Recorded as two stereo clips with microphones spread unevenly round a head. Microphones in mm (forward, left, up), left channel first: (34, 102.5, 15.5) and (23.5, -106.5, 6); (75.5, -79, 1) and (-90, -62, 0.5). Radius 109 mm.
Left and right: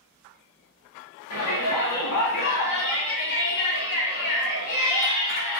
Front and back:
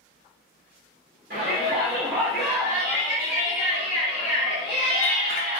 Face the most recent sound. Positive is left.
turn(degrees=35)